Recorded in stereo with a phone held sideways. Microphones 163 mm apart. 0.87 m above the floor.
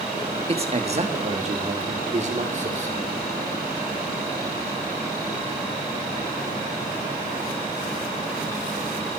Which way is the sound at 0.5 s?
40° right (ahead or behind).